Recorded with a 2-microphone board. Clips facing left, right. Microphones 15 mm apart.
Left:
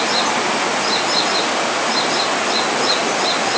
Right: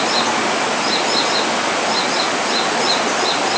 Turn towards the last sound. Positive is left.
No sound to turn to.